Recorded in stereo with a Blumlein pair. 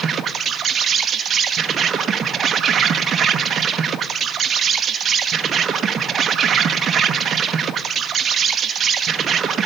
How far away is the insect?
About 1.0 m.